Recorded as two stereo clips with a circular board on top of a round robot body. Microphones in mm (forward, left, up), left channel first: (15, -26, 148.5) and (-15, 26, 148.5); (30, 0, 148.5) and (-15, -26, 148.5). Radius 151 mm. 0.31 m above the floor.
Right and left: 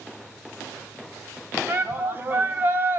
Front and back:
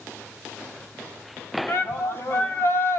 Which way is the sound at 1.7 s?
70° left.